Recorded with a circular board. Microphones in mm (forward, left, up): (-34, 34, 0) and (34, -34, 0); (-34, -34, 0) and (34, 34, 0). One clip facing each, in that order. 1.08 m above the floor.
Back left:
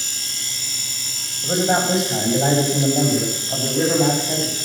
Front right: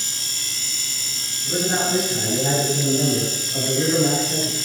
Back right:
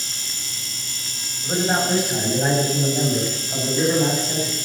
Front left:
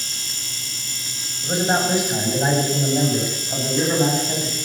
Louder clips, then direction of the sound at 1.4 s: Back left 4 dB, front left 1 dB; 120° left.